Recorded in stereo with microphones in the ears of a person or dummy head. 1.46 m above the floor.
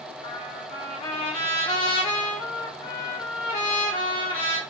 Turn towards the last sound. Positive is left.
turn(degrees=40)  # may be behind; listen again after turning